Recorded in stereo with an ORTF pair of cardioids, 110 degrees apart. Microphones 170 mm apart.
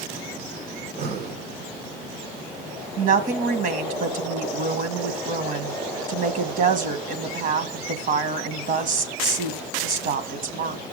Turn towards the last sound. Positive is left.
turn(degrees=-55)